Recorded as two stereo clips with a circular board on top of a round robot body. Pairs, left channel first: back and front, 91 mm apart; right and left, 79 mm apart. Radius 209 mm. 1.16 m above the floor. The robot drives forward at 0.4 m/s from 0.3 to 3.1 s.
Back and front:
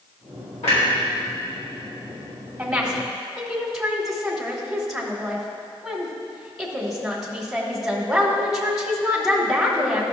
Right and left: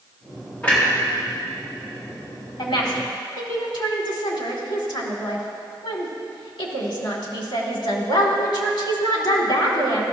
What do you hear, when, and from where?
0.6 s a clunk: 165° right, 2.0 m
2.6 s a woman speaking: 80° right, 1.8 m; by 10.0 s 85° right, 1.7 m